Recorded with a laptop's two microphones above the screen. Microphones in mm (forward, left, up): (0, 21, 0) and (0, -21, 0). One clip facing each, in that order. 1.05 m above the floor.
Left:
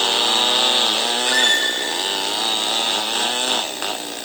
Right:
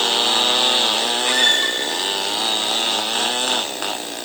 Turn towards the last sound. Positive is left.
turn(degrees=-45)  # may be behind; listen again after turning